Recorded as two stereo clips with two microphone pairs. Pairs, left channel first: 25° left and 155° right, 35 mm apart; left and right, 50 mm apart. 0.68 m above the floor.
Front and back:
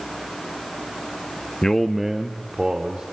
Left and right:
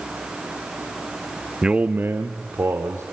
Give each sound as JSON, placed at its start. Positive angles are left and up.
{"t": 1.6, "sound": "a man speaking", "azimuth_deg": -25, "distance_m": 0.7}